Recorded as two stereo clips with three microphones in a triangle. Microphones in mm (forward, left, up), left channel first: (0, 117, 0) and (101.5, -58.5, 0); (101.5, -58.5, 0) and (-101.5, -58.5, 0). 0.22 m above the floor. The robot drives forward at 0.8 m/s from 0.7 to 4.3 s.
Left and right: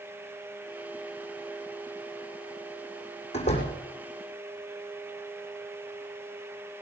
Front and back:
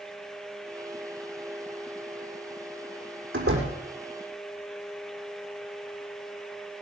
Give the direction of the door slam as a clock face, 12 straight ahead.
6 o'clock.